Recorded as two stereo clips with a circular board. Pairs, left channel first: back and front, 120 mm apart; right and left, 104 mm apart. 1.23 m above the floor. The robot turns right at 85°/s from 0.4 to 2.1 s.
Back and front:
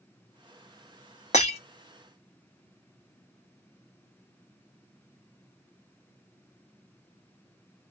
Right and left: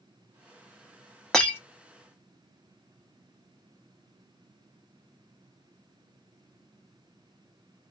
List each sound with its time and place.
1.3 s breaking glass: 175° right, 1.0 m; by 1.6 s 155° right, 1.0 m